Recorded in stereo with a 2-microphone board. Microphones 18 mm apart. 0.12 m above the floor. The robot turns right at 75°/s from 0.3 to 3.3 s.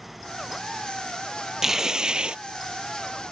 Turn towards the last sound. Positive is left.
turn(degrees=-25)